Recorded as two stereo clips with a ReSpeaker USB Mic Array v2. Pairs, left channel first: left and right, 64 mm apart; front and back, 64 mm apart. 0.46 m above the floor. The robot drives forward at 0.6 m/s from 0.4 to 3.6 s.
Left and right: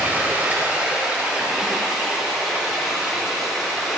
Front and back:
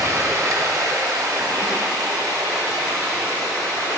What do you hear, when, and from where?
0.0 s running water: 155° right, 1.0 m; by 4.0 s 170° right, 3 m